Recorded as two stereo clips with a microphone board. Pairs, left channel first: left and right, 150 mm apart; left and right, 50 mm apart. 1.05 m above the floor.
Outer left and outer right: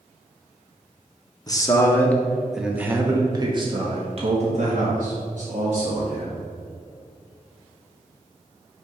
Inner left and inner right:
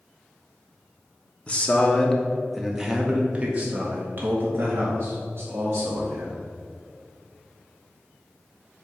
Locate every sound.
1.5 s a man speaking: 25° left (ahead or behind), 1.1 m; by 6.5 s 70° right (ahead or behind), 2 m